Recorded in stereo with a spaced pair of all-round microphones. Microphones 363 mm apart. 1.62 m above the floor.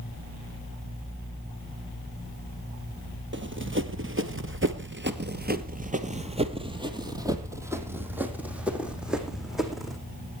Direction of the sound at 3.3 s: 30° right (ahead or behind).